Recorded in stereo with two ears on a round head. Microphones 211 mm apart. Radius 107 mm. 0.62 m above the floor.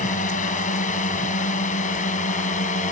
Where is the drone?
35° left (ahead or behind).